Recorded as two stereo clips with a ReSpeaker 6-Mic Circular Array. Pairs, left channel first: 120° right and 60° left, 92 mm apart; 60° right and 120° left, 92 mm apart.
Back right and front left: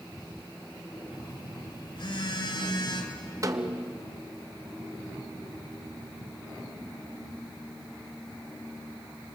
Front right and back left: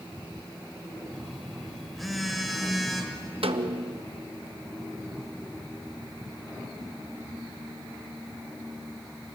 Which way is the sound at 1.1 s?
150° right.